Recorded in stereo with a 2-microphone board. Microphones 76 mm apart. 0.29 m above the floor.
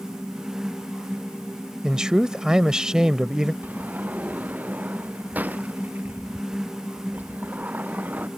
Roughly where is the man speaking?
Centre.